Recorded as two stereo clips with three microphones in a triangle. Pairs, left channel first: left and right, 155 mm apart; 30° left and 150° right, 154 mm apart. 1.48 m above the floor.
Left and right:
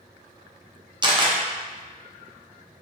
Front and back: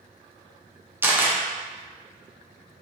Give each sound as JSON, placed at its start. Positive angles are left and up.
{"t": 1.0, "sound": "a camera shutter", "azimuth_deg": -85, "distance_m": 0.6}